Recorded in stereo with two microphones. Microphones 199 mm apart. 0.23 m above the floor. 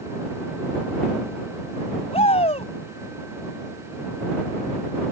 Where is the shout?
35° left (ahead or behind).